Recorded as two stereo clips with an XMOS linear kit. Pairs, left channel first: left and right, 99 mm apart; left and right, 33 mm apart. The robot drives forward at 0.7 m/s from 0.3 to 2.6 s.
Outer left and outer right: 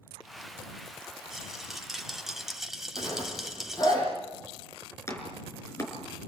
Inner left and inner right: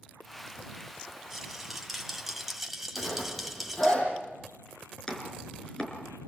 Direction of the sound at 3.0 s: 40° left (ahead or behind).